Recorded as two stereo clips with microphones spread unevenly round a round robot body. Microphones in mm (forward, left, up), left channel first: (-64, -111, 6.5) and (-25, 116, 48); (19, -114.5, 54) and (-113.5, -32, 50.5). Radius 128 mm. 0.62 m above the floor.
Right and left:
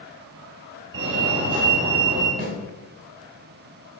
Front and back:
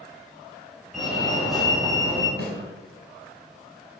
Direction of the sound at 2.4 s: 125° left.